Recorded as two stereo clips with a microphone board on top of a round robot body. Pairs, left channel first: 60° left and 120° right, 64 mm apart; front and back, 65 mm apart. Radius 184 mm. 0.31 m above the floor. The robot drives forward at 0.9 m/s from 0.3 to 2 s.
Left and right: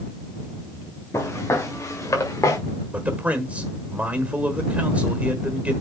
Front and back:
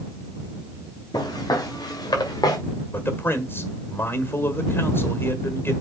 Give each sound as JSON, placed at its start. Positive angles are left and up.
{"t": 1.1, "sound": "footsteps", "azimuth_deg": 10, "distance_m": 5.0}
{"t": 2.9, "sound": "a man speaking", "azimuth_deg": -55, "distance_m": 1.7}